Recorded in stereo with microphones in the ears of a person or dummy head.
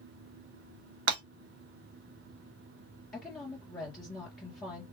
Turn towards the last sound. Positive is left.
turn(degrees=10)  # may be behind; listen again after turning